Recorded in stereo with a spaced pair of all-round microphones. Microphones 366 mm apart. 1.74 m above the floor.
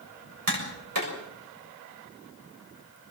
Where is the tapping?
65° right (ahead or behind), 6.5 m.